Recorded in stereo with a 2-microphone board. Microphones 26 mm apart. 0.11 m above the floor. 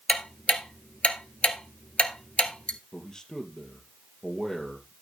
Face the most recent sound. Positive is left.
turn(degrees=30)  # may be behind; listen again after turning